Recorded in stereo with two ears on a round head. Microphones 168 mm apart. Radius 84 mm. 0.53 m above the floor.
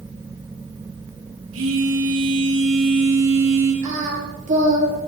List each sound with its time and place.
1.5 s a phone buzzing: 75° right (ahead or behind), 8 m
3.8 s singing: 40° right (ahead or behind), 5 m